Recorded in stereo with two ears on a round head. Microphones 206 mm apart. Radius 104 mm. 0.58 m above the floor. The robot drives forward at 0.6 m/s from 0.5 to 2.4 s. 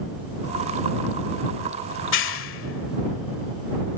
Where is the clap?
55° left (ahead or behind); by 3.4 s 60° left (ahead or behind).